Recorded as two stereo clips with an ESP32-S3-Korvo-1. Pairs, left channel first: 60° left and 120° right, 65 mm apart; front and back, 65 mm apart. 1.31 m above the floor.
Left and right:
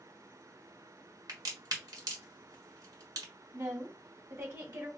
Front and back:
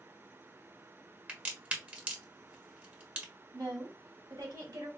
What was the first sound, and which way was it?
A crack, 115° right.